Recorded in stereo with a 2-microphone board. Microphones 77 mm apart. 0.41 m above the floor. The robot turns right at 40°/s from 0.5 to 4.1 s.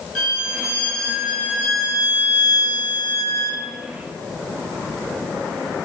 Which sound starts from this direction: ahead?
A violin, at 0.1 s.